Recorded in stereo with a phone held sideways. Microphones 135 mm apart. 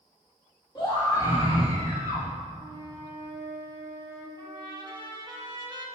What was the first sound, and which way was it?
A scream, 35° left (ahead or behind).